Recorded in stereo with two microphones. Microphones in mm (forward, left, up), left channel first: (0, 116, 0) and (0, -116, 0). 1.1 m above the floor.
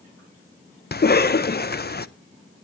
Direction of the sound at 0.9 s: 45° left (ahead or behind).